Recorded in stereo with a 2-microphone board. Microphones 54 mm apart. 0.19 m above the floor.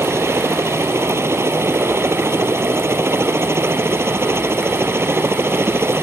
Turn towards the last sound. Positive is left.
turn(degrees=-50)  # may be behind; listen again after turning